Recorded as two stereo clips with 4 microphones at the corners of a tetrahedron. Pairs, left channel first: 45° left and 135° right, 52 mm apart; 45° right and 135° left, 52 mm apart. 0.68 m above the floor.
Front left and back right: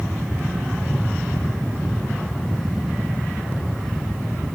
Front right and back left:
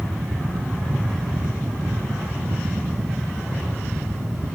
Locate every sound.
Only background noise.